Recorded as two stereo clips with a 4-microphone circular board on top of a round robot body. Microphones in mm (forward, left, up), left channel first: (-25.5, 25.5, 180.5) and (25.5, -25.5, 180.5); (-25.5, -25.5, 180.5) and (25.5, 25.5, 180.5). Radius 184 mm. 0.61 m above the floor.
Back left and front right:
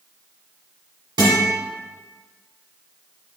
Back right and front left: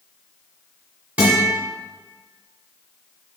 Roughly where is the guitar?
Ahead right.